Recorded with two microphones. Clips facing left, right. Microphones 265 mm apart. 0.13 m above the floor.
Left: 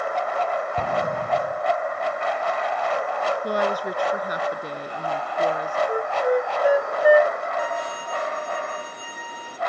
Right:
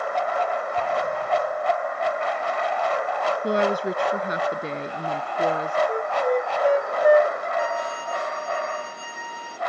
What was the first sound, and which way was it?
An explosion, 40° left (ahead or behind).